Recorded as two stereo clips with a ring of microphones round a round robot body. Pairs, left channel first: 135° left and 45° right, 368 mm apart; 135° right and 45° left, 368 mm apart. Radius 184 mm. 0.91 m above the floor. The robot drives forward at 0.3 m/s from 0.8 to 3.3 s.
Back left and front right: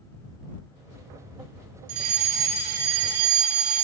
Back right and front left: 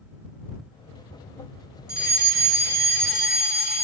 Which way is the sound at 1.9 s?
20° right.